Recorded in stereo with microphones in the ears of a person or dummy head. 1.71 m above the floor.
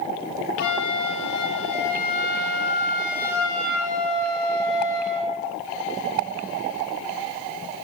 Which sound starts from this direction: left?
A flute, at 0.6 s.